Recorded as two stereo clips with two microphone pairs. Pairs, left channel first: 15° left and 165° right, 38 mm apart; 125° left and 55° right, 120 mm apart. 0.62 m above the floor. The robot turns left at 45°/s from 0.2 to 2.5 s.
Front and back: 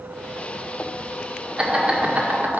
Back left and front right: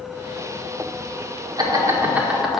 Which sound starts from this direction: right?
Laughter, at 1.6 s.